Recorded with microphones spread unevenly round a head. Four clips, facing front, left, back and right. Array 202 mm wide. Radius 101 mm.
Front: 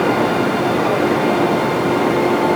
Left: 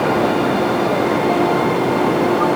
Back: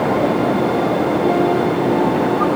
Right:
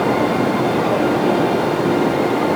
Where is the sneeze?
I don't hear a sneeze.